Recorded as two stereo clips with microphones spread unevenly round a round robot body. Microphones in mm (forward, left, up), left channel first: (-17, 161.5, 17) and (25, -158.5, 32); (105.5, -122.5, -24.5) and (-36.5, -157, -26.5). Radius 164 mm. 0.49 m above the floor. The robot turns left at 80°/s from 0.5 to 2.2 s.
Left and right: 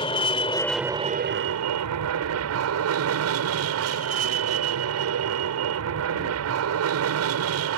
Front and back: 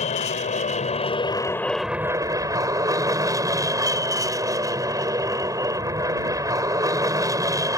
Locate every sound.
0.0 s an aircraft: 30° left; by 7.8 s 110° right